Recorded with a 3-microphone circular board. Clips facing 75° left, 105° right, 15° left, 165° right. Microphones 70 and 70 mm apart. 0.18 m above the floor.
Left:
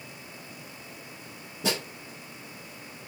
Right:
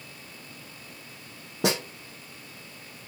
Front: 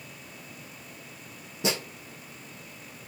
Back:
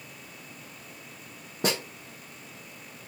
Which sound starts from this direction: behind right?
A snare drum, at 1.6 s.